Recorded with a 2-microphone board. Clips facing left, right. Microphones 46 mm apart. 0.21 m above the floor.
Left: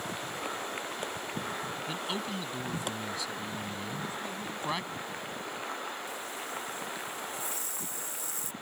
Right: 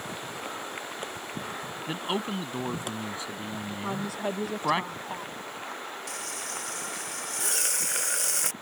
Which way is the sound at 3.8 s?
75° right (ahead or behind).